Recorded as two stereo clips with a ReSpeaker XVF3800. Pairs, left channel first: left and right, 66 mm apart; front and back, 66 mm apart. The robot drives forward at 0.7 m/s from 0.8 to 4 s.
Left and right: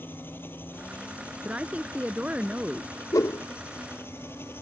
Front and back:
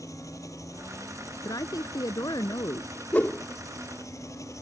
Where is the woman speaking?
20° right.